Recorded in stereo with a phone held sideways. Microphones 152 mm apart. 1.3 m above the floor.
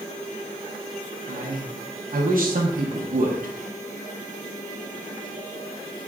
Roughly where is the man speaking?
Right.